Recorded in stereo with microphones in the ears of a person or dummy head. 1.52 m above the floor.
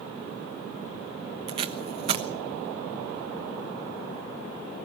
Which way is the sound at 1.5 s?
35° right (ahead or behind).